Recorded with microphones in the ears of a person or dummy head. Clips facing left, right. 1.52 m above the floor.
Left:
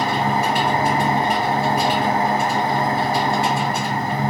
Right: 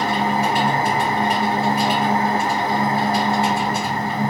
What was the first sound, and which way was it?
An engine running, 40° left (ahead or behind).